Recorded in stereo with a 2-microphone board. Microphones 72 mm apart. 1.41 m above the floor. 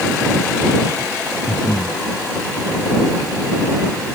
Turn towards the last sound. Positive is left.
turn(degrees=70)  # may be behind; listen again after turning